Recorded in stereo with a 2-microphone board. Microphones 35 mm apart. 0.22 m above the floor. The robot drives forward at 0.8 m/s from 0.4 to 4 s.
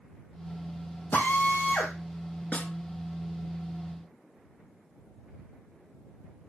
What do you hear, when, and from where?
1.1 s a drill: 65° left (ahead or behind), 4 m; by 1.9 s 70° left (ahead or behind), 3.5 m
2.5 s a snare drum: 50° left (ahead or behind), 1.5 m; by 2.7 s 55° left (ahead or behind), 1.4 m